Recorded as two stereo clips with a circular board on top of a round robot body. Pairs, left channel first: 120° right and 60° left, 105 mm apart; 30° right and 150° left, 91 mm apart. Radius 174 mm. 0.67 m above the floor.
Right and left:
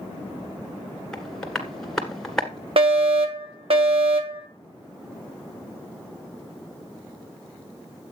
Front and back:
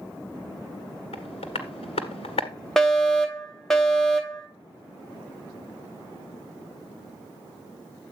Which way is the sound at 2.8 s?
55° left.